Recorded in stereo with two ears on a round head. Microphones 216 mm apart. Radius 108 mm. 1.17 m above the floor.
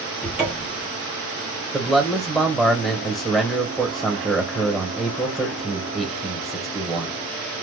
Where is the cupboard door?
5° right (ahead or behind), 1.1 m.